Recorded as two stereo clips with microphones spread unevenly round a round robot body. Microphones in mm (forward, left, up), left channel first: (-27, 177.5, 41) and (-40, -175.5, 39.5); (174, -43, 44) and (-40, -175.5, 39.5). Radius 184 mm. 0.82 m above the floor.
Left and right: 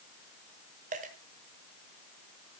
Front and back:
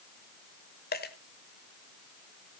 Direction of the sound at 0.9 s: 20° right.